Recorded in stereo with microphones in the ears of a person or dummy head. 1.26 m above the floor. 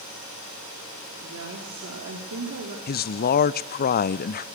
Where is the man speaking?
45° left (ahead or behind), 0.6 m.